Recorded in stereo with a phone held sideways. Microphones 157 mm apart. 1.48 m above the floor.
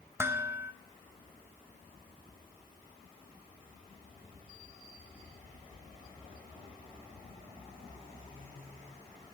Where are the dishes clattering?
15° right (ahead or behind), 1.1 m.